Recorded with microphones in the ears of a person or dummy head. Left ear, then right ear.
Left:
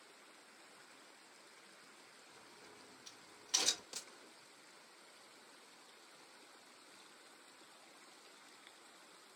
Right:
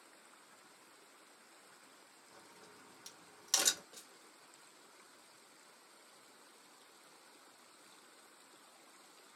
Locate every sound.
2.3 s a crack: 50° right (ahead or behind), 1.5 m
3.9 s a gunshot: 60° left (ahead or behind), 0.8 m